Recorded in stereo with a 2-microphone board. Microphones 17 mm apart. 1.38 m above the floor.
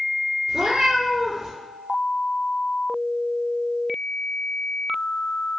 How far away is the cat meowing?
About 2.0 m.